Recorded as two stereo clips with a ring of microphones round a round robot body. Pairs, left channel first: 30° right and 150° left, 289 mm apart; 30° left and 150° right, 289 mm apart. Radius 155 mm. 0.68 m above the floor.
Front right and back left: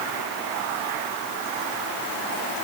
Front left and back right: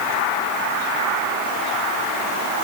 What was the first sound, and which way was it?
Only background noise.